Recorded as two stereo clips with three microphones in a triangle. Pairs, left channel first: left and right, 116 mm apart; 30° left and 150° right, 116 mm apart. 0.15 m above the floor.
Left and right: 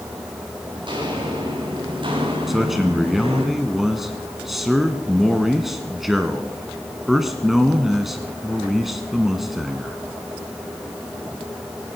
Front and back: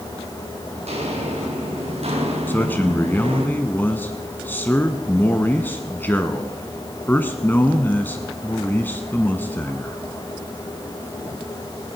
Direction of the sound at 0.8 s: 135° right.